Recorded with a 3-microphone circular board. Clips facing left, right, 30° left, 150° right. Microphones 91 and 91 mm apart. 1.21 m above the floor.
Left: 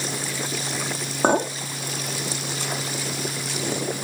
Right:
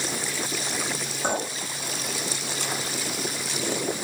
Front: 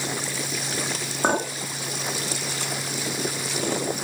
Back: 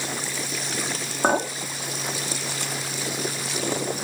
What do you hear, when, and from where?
1.2 s a clink: 125° left, 1.2 m